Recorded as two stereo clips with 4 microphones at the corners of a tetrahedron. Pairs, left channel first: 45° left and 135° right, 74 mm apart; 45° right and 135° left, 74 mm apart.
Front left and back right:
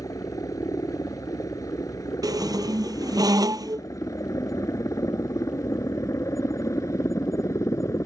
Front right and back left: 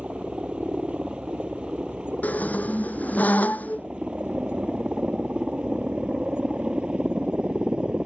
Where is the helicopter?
60° left.